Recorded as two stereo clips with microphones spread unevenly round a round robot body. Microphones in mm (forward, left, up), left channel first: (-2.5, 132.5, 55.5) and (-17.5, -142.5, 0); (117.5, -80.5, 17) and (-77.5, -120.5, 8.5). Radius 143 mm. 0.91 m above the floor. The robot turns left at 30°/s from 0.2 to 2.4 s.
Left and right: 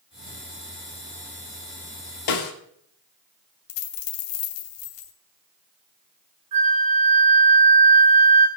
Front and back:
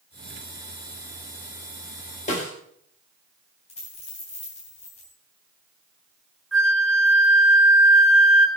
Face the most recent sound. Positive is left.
turn(degrees=-75)